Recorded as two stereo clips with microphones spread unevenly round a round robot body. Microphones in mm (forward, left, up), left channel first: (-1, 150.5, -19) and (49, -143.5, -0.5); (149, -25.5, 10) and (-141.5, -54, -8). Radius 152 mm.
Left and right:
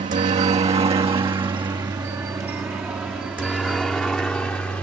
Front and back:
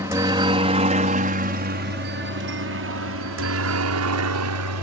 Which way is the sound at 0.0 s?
115° right.